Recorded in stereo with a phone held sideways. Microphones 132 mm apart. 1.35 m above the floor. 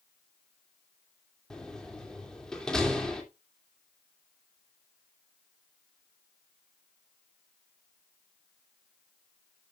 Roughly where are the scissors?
I don't hear scissors.